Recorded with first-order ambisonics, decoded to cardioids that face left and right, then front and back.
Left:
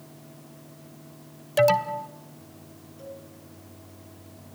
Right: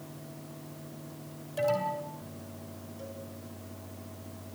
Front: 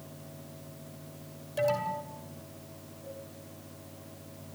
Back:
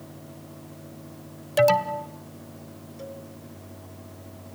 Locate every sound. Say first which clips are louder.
1.6 s an alarm: left 8 dB, back 9 dB; 130° left, 1.7 m
3.0 s a cowbell: left 3 dB, back 6 dB; 175° right, 4.5 m